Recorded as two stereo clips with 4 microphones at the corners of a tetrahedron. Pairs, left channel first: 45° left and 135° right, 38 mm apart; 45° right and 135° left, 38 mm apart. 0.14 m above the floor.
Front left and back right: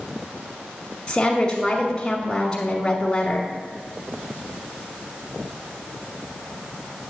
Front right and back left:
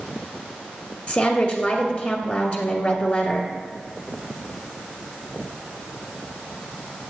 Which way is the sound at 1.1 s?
25° right.